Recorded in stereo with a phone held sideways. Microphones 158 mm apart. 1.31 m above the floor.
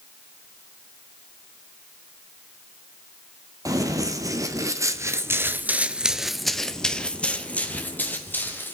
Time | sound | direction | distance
3.6 | running footsteps | 20° right (ahead or behind) | 2.5 m